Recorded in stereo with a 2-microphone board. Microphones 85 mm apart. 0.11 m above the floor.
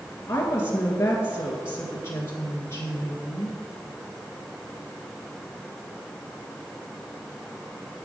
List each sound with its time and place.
0.3 s a woman speaking: 30° left (ahead or behind), 1.9 m